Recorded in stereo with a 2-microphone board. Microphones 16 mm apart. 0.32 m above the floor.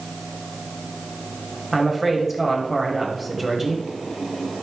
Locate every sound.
1.7 s a woman speaking: 5° right (ahead or behind), 1.8 m